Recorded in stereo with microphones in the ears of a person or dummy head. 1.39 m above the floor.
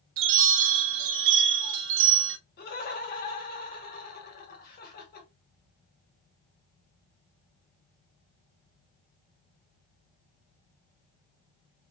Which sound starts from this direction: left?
Laughter, at 2.6 s.